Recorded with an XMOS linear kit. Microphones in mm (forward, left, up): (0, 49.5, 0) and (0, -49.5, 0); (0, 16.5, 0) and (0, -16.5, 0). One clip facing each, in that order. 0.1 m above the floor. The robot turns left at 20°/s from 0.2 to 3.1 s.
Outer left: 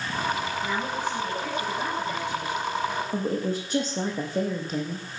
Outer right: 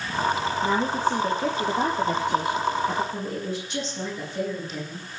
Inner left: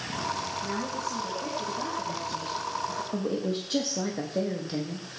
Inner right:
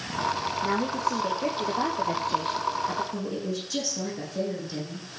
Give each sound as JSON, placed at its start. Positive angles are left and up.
{"t": 0.6, "sound": "a woman speaking", "azimuth_deg": -50, "distance_m": 2.5}
{"t": 3.1, "sound": "a woman speaking", "side_deg": 45, "distance_m": 5.0}